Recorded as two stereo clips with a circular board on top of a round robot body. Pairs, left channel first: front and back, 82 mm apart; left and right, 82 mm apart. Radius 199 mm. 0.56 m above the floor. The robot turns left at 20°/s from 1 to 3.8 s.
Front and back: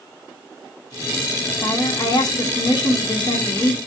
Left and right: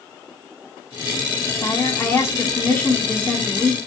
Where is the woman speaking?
45° left, 2 m; by 3.8 s straight ahead, 2 m.